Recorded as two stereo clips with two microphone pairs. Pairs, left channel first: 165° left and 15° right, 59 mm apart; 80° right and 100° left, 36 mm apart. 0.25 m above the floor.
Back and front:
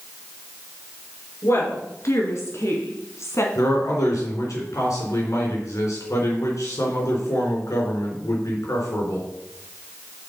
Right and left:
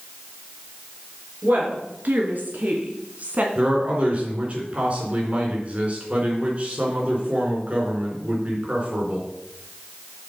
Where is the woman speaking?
130° left, 3.5 m; by 3.5 s 140° left, 2 m.